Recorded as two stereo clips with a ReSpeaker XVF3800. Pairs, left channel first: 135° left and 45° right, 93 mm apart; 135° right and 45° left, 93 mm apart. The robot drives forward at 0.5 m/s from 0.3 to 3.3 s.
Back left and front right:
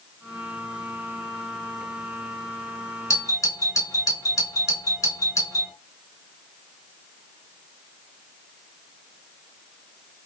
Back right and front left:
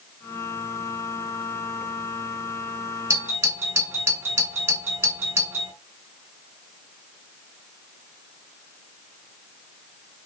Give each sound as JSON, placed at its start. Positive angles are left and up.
{"t": 3.1, "sound": "a doorbell", "azimuth_deg": 100, "distance_m": 2.5}